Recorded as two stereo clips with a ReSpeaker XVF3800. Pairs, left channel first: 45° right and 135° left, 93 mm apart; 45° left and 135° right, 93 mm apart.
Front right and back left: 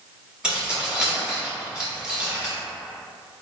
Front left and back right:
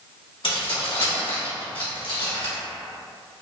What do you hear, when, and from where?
0.4 s keys jangling: 60° left, 1.5 m